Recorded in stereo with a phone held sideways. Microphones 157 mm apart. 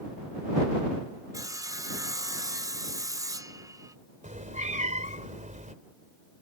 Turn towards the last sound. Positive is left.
turn(degrees=-50)  # may be behind; listen again after turning